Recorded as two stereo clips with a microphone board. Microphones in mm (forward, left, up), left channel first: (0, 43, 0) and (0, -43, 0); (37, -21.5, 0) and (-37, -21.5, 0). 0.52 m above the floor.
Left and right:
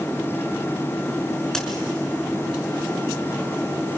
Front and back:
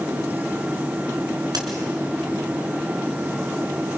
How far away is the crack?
About 3.5 m.